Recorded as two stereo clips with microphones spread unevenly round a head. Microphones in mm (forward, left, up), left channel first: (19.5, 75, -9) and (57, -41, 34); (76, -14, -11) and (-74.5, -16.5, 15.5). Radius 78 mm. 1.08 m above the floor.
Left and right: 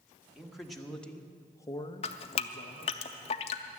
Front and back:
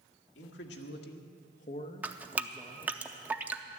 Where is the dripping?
140° left, 0.5 m.